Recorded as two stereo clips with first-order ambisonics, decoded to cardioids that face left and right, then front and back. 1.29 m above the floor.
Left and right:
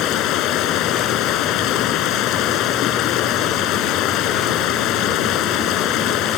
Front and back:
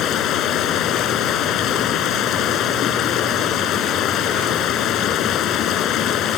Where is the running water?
50° left.